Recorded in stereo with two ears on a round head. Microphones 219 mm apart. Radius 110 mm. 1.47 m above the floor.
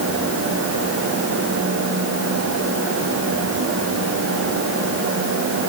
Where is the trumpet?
No trumpet in this recording.